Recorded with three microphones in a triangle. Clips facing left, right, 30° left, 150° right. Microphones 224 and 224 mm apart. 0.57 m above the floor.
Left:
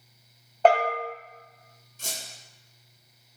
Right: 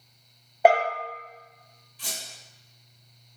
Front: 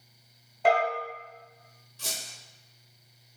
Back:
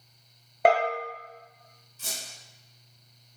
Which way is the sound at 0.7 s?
170° right.